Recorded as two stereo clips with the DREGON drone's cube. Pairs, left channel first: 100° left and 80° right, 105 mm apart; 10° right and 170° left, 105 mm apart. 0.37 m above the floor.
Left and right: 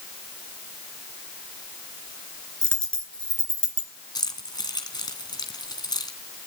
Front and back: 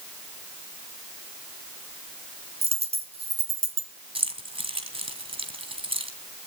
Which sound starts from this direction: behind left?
Keys jangling, at 4.2 s.